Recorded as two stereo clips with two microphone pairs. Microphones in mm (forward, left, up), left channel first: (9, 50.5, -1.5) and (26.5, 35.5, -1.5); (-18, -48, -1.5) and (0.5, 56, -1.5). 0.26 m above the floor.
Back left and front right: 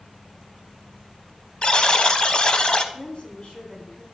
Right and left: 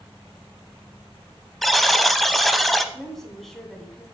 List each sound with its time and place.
1.6 s a buzzer: 170° left, 0.7 m
2.9 s a woman speaking: 170° left, 2 m